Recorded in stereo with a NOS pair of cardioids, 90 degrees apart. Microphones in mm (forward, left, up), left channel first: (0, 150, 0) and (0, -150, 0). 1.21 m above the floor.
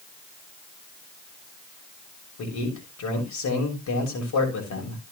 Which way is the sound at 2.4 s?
70° left.